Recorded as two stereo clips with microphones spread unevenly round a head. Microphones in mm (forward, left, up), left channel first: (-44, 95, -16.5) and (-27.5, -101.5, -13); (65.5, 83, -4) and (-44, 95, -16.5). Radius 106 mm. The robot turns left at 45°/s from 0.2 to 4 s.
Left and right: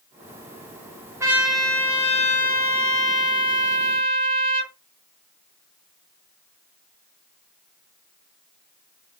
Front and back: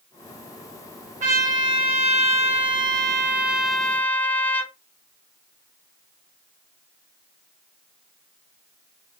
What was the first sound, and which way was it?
A trumpet, 160° right.